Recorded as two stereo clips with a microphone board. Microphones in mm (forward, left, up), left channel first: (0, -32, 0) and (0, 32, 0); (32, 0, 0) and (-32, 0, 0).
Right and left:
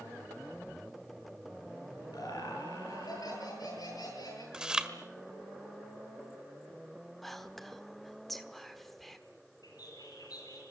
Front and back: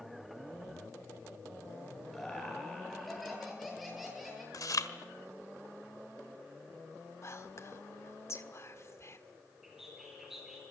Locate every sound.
2.1 s laughter: 90° right, 9 m
4.5 s chewing: 10° left, 1.5 m
7.2 s whispering: 5° right, 1.4 m
9.6 s a bird: 95° right, 7.5 m